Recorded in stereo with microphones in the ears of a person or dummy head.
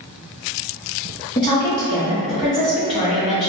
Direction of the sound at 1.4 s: 25° left (ahead or behind).